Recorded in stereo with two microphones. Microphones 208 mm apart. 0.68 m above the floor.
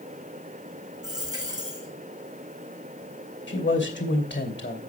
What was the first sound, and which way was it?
A dropped coin, 20° right (ahead or behind).